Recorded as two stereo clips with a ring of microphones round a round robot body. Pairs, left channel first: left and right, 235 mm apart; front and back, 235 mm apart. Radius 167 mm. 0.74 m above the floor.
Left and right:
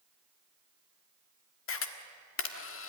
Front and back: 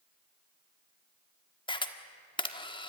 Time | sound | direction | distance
1.7 | a camera shutter | 70° left | 1.7 m